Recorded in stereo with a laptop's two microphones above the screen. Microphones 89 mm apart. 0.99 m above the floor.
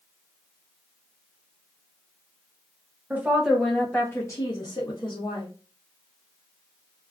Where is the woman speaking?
20° right (ahead or behind), 0.7 m; by 5.5 s 65° left (ahead or behind), 1.1 m.